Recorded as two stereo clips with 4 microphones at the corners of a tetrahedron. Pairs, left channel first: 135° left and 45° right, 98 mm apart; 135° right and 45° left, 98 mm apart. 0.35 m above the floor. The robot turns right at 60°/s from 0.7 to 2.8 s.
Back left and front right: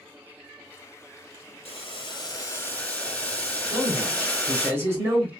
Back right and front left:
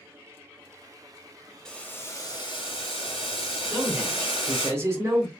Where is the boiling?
145° left, 1.1 m; by 4.7 s 150° right, 1.1 m.